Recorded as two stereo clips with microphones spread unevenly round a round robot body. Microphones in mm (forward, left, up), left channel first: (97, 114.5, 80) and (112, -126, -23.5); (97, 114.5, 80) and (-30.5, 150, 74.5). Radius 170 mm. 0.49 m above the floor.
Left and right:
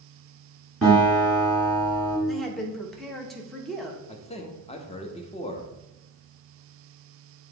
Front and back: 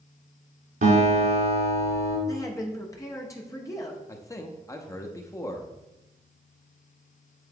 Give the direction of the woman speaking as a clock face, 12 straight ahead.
2 o'clock.